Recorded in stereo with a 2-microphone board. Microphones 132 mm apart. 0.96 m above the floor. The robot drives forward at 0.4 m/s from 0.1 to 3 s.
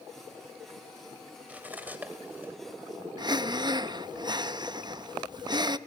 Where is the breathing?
35° right (ahead or behind), 0.6 m.